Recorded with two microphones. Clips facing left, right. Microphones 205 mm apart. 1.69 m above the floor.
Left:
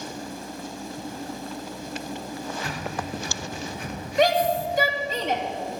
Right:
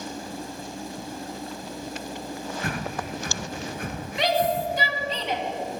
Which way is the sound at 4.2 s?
45° left (ahead or behind).